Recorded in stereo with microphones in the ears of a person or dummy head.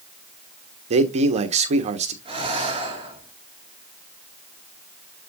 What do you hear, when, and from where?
0.9 s a man speaking: 40° right (ahead or behind), 1.2 m
2.2 s breathing: 35° right (ahead or behind), 2.5 m